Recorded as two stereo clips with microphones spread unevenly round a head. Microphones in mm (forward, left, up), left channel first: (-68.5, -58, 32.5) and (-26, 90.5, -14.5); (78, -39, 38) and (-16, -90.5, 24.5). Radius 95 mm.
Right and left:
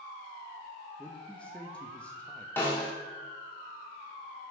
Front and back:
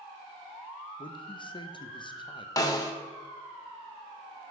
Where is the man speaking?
20° right, 0.9 m.